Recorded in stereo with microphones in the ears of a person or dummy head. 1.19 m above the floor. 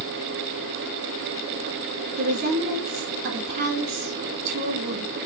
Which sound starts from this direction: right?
A woman speaking, at 2.2 s.